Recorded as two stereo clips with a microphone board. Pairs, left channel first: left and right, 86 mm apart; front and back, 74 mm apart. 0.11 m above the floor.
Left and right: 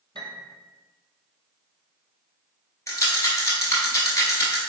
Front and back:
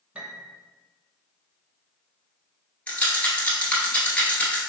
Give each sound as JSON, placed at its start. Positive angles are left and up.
{"t": 0.1, "sound": "a piano", "azimuth_deg": -105, "distance_m": 0.7}
{"t": 2.9, "sound": "a rattle", "azimuth_deg": 60, "distance_m": 1.1}